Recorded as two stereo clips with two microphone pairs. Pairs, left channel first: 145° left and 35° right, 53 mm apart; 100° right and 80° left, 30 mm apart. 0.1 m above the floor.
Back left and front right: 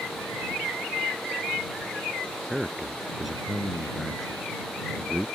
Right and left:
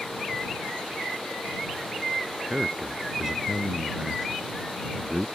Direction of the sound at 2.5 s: 50° left.